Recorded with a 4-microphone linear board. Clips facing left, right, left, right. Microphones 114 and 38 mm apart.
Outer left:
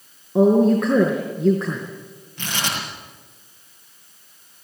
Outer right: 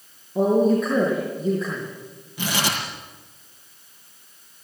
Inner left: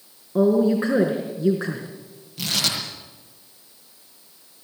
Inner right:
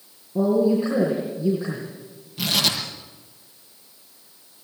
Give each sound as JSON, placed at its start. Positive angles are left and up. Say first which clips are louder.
{"t": 0.3, "sound": "a woman speaking", "louder": "outer left 3 dB, inner left 1 dB", "side_deg": 75, "distance_m": 4.0}
{"t": 2.4, "sound": "tearing paper", "louder": "outer right 2 dB, inner right 2 dB", "side_deg": -10, "distance_m": 8.0}